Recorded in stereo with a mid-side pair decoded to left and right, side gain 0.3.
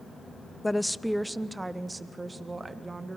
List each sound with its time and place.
0.6 s a woman speaking: 15° left, 0.7 m; by 3.2 s 40° right, 2.5 m